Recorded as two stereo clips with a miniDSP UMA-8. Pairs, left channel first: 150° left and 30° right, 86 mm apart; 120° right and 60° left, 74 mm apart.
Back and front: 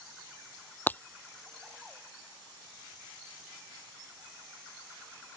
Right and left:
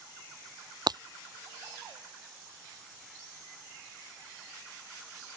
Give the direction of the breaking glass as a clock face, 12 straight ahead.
9 o'clock.